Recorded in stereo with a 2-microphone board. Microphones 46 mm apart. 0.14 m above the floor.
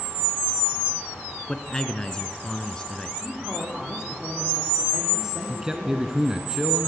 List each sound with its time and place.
1.5 s a man speaking: 15° left (ahead or behind), 1.3 m
3.2 s a man speaking: 15° right (ahead or behind), 7 m
5.5 s a man speaking: 15° right (ahead or behind), 1.1 m